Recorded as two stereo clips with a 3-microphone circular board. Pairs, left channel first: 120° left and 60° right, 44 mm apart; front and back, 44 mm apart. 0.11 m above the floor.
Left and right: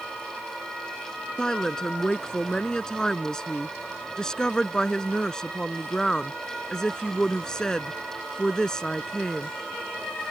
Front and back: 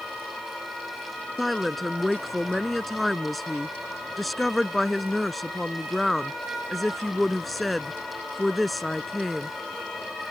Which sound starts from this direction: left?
A woman speaking, at 1.4 s.